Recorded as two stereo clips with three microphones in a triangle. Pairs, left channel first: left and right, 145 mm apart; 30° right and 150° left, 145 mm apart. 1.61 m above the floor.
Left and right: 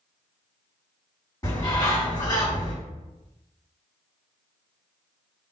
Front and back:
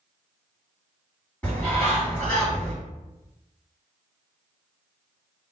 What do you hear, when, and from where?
1.4 s a bird: 45° left, 1.7 m